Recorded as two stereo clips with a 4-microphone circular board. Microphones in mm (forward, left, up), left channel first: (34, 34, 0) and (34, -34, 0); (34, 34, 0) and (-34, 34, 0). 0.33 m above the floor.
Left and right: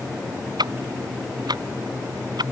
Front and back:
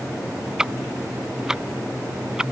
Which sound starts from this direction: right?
Ticking, at 0.6 s.